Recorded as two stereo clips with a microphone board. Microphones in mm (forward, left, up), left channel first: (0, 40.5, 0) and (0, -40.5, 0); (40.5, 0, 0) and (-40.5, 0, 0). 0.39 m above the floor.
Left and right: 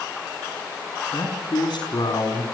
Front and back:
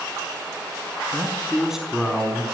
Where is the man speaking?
105° left, 4 m; by 2.4 s 85° left, 4 m.